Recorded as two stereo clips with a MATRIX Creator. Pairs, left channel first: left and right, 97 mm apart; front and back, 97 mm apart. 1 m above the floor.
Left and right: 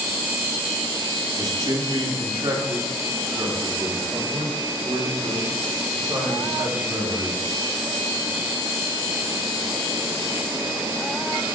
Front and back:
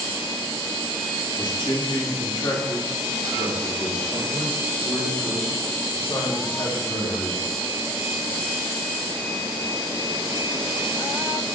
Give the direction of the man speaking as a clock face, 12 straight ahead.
1 o'clock.